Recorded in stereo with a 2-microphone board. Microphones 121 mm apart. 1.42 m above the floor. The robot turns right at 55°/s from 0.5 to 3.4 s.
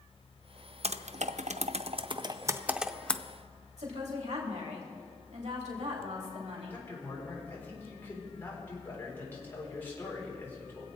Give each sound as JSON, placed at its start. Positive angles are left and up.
{"t": 0.8, "sound": "typing on a keyboard", "side_deg": -60, "distance_m": 0.5}
{"t": 3.8, "sound": "a woman speaking", "side_deg": -70, "distance_m": 3.0}
{"t": 6.7, "sound": "a man speaking", "side_deg": 20, "distance_m": 4.0}